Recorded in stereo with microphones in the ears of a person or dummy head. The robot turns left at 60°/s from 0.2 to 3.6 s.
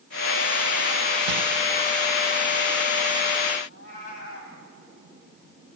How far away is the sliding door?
About 0.8 m.